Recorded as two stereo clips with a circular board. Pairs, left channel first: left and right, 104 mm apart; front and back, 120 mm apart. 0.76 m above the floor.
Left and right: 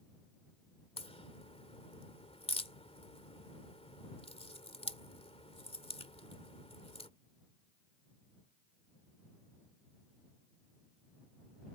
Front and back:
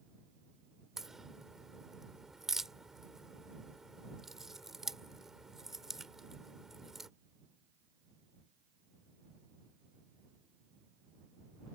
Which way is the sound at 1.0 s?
95° left.